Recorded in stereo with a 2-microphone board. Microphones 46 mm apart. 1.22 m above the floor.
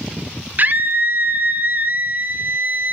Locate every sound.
0.6 s a scream: 40° right (ahead or behind), 0.6 m